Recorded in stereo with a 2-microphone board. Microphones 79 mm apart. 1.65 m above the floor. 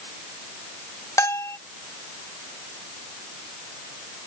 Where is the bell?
40° left (ahead or behind).